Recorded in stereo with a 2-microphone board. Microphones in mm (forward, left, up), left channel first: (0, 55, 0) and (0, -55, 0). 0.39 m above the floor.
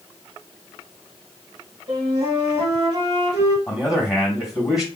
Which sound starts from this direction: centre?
A man speaking, at 3.7 s.